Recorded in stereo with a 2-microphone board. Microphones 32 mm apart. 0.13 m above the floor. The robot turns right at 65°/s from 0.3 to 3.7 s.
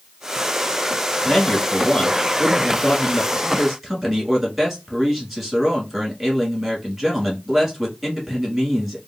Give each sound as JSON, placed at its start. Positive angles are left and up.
{"t": 1.2, "sound": "a man speaking", "azimuth_deg": 30, "distance_m": 1.5}